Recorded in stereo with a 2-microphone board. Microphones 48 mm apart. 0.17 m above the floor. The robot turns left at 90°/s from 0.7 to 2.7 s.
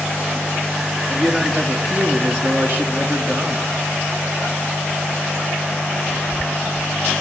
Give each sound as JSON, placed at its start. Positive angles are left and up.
{"t": 1.1, "sound": "a man speaking", "azimuth_deg": 20, "distance_m": 2.5}